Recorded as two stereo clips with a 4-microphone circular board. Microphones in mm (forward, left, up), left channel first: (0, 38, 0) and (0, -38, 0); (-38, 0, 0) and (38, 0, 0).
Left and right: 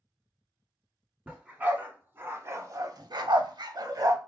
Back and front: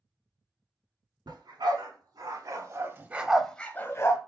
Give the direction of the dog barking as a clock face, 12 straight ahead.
1 o'clock.